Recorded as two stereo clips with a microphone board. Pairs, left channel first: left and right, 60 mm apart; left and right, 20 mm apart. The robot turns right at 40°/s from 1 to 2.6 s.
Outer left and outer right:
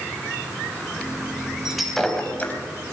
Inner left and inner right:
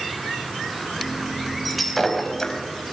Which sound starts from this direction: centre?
Breaking glass, at 1.6 s.